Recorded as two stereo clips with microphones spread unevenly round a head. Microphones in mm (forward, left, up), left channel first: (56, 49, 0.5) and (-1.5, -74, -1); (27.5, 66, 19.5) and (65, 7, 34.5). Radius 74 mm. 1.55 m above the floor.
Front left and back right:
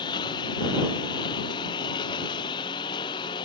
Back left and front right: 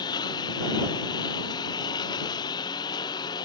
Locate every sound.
0.0 s a lawn mower: 125° left